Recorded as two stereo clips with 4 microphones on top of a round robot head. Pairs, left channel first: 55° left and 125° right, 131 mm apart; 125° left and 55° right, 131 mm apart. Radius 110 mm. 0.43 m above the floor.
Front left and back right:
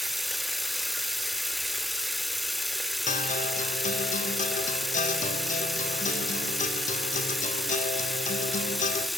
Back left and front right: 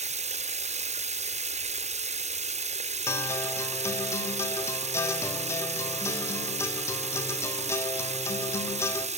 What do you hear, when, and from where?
0.0 s running water: 35° right, 1.0 m
3.1 s a guitar: 60° left, 3 m